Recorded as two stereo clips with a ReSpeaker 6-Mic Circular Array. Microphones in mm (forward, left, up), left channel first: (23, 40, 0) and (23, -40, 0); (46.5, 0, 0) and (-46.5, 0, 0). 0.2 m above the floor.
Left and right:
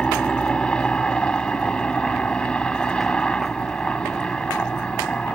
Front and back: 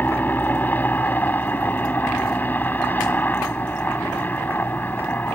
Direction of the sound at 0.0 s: 30° left.